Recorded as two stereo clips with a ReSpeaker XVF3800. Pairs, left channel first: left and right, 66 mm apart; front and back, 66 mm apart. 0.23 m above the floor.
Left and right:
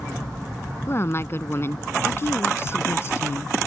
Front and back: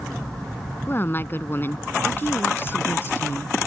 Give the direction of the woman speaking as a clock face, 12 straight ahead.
10 o'clock.